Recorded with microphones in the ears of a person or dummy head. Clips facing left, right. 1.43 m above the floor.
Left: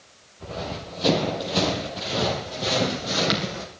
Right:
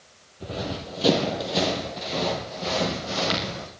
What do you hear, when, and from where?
0.4 s running footsteps: 20° right (ahead or behind), 3 m; by 3.6 s 30° left (ahead or behind), 3.5 m